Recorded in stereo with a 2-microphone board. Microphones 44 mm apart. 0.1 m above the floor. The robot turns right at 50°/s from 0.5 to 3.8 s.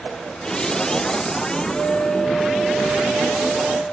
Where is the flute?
130° left, 1.2 m; by 3.8 s 125° right, 1.2 m.